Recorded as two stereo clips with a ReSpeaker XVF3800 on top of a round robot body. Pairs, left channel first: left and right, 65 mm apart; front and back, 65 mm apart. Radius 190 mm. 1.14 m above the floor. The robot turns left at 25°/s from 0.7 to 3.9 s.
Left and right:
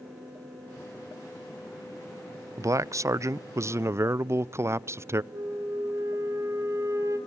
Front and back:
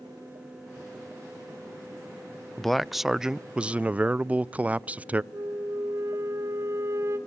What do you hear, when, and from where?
2.6 s a man speaking: 85° right, 0.5 m; by 5.2 s 120° right, 0.5 m
5.3 s a flute: 140° right, 2.5 m